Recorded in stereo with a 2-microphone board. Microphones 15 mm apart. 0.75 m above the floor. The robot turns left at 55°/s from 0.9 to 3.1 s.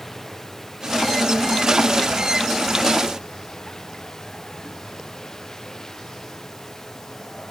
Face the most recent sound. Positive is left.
turn(degrees=45)  # may be behind; listen again after turning